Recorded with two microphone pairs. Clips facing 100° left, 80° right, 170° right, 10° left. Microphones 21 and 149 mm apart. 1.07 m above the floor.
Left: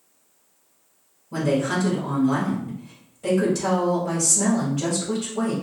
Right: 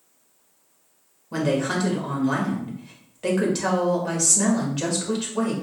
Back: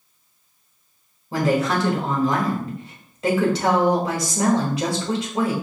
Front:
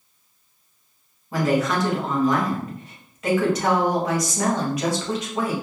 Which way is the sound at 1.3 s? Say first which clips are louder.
Left 1 dB, back 1 dB; 110° right.